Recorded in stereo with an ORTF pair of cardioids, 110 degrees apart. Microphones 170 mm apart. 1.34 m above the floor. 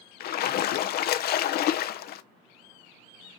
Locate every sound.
0.2 s a splash: 65° left, 0.7 m